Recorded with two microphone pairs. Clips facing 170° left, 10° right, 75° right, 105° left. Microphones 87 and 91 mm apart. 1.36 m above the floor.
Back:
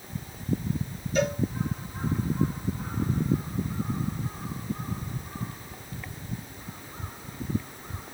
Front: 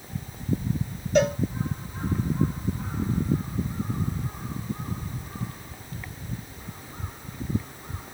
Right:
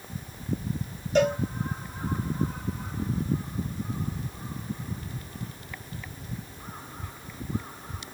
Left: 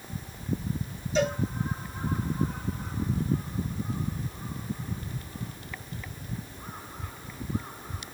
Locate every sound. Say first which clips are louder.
1.1 s a cowbell: front 5 dB, right 4 dB; 35° right, 1.5 m